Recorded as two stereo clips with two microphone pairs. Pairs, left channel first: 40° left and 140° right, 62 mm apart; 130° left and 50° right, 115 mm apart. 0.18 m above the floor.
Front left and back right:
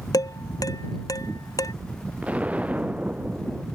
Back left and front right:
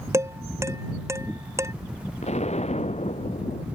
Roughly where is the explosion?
Behind left.